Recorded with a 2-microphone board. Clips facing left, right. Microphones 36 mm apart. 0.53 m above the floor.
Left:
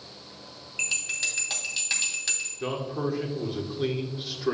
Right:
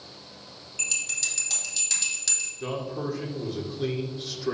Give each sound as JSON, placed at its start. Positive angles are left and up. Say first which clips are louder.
{"t": 0.8, "sound": "a bell", "louder": "left 2 dB", "side_deg": 25, "distance_m": 2.5}
{"t": 2.6, "sound": "a man speaking", "louder": "left 2 dB", "side_deg": 15, "distance_m": 1.5}